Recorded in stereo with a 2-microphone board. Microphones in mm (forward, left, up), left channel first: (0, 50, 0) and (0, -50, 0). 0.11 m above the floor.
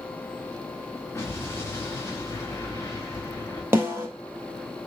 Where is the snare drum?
25° right (ahead or behind), 1.8 m.